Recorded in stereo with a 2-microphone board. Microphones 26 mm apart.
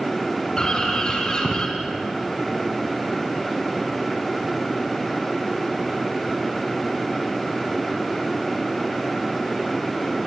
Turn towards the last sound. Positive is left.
turn(degrees=30)  # may be behind; listen again after turning